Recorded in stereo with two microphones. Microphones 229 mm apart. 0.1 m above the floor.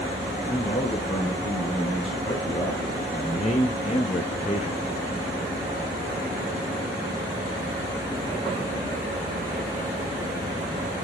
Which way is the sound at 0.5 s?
25° left (ahead or behind).